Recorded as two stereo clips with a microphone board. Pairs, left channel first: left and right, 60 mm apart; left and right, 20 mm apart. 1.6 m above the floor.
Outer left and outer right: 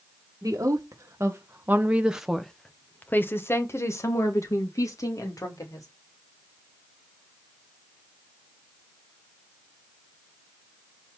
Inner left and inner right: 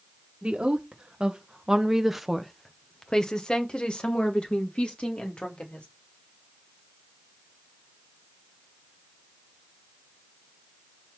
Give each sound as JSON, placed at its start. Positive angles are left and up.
{"t": 0.4, "sound": "a woman speaking", "side_deg": -65, "distance_m": 1.7}